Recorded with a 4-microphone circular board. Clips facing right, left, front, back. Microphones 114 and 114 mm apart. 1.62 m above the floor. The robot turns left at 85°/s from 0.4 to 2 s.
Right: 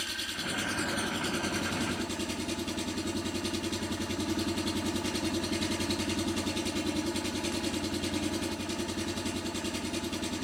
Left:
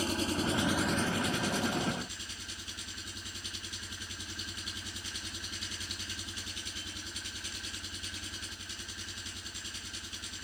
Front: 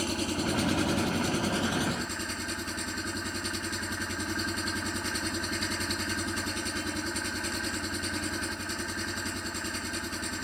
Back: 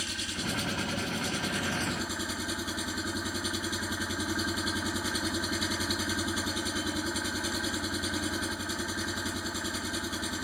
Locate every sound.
0.0 s an engine running: 40° left; by 10.4 s 95° right